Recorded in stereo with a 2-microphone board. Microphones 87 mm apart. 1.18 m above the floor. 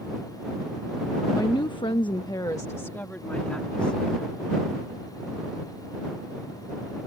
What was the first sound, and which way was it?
A woman speaking, 50° left (ahead or behind).